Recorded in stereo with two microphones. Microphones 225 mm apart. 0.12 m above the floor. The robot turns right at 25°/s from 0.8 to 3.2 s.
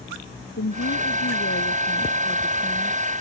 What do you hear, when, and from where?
0.6 s a woman speaking: 85° left; by 3.0 s 140° left